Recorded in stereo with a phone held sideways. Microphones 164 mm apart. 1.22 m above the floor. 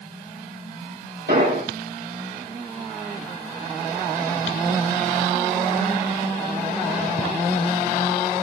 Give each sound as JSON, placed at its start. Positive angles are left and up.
{"t": 1.3, "sound": "an explosion", "side_deg": -80, "distance_m": 7.5}